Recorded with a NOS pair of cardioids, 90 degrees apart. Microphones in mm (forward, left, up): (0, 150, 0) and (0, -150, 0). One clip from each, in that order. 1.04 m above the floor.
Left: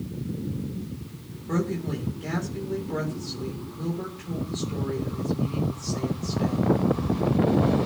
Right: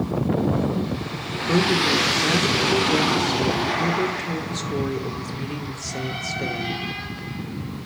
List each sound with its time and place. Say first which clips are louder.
1.5 s a woman speaking: right 10 dB; 65° right, 3 m